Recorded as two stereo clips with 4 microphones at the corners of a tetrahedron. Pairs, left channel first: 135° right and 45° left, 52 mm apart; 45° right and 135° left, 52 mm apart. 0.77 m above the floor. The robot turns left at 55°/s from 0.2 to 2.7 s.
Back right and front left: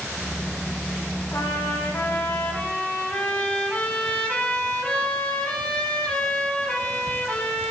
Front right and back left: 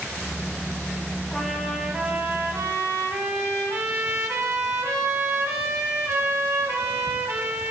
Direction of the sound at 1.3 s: 120° right.